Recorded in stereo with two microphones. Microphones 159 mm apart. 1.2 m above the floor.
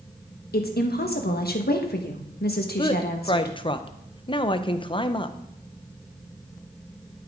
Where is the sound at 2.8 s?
30° left (ahead or behind), 0.7 m.